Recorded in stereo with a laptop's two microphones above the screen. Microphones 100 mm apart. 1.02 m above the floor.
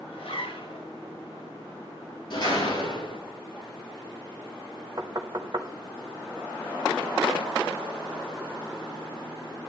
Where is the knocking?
40° right (ahead or behind), 1.1 m.